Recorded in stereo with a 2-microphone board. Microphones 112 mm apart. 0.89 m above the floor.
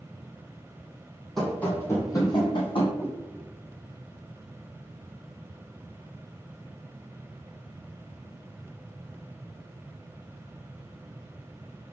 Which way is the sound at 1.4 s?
5° left (ahead or behind).